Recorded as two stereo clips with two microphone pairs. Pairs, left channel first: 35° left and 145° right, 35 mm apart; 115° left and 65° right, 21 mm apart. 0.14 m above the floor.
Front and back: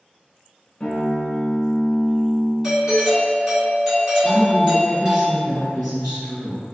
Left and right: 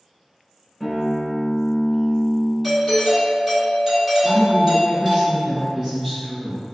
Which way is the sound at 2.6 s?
85° right.